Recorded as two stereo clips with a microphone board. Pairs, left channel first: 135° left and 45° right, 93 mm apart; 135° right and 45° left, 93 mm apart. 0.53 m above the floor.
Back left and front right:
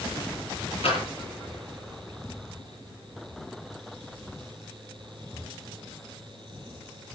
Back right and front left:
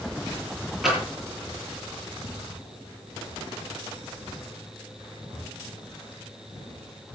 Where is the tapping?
135° left, 9.5 m.